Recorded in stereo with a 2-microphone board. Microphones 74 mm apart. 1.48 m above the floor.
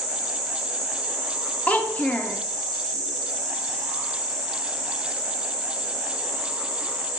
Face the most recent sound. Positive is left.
turn(degrees=20)  # may be behind; listen again after turning